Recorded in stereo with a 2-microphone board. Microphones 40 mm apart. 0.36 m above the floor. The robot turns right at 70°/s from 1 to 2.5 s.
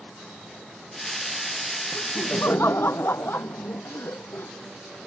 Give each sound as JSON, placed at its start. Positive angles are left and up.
{"t": 1.9, "sound": "laughter", "azimuth_deg": 65}